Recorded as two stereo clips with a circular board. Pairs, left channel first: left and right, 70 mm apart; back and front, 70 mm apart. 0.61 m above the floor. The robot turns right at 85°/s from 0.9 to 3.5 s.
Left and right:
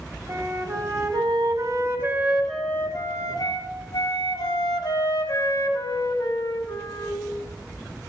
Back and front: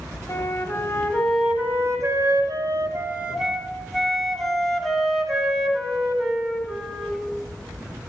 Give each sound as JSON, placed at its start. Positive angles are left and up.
{"t": 0.3, "sound": "a flute", "azimuth_deg": -125, "distance_m": 1.6}